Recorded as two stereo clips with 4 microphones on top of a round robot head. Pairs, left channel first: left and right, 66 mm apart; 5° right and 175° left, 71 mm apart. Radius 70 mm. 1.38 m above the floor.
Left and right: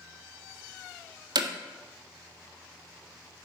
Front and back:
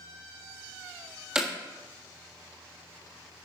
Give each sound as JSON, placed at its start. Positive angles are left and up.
{"t": 1.4, "sound": "hammering", "azimuth_deg": -105, "distance_m": 1.5}